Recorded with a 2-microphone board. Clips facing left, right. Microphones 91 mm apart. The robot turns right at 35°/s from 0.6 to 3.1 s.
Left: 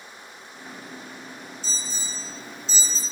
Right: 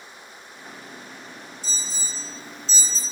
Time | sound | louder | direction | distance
1.6 | an alarm | left 1 dB | 15° right (ahead or behind) | 2.5 m